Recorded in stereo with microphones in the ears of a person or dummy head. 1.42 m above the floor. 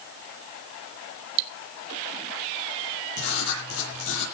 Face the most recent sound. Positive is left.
turn(degrees=75)  # may be behind; listen again after turning